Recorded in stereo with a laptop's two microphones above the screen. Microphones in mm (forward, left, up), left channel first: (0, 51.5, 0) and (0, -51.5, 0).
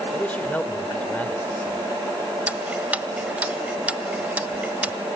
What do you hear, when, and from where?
0.1 s a man speaking: 15° left (ahead or behind), 3.5 m
2.5 s ticking: 15° right (ahead or behind), 1.3 m